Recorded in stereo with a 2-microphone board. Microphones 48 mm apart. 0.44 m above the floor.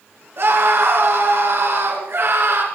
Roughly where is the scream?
Right.